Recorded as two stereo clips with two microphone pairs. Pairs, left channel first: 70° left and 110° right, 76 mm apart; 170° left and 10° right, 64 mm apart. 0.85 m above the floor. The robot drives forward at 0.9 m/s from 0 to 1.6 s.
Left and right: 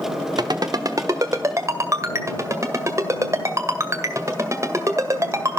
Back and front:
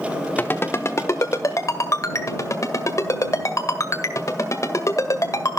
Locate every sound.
0.4 s a ringtone: 135° right, 0.9 m; by 5.6 s 160° right, 1.9 m